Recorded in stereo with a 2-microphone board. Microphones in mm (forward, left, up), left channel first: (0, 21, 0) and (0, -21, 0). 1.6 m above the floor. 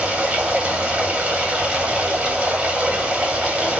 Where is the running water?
25° right (ahead or behind), 1.2 m.